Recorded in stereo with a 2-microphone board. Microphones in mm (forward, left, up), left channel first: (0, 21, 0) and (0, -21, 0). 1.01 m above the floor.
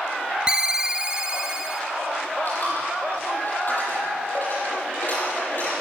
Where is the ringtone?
20° right (ahead or behind), 1.0 m.